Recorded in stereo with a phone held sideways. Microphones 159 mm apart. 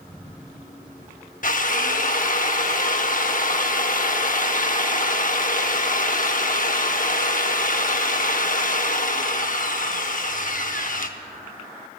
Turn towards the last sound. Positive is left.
turn(degrees=60)  # may be behind; listen again after turning